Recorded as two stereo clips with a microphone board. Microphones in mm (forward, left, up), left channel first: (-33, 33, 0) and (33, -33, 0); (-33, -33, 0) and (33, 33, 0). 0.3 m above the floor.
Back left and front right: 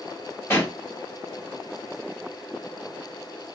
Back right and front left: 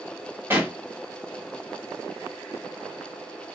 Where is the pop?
95° left, 1.9 m.